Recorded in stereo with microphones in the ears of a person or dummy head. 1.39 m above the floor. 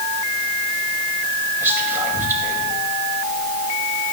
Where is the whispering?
10° right (ahead or behind), 2.5 m.